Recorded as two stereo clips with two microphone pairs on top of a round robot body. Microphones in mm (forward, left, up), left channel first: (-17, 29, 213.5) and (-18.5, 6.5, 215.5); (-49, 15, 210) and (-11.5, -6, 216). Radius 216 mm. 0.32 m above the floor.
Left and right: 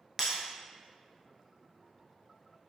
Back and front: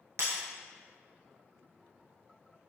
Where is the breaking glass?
20° right, 0.7 m.